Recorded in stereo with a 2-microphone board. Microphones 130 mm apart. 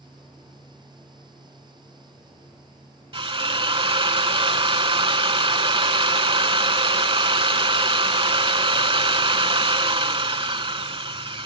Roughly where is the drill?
Right.